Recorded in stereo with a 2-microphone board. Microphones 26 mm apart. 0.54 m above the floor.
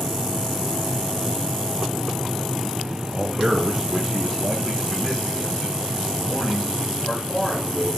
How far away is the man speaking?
About 0.9 m.